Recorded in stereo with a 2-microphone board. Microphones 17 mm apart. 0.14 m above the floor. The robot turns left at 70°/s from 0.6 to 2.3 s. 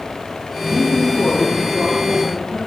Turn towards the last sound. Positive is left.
turn(degrees=-45)